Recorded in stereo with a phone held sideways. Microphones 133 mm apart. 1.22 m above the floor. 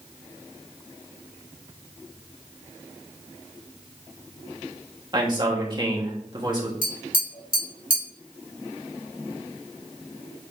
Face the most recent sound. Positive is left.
turn(degrees=80)